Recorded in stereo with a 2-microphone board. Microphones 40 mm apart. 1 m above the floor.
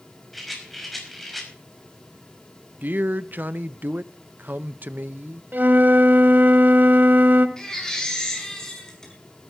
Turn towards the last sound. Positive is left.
turn(degrees=15)  # may be behind; listen again after turning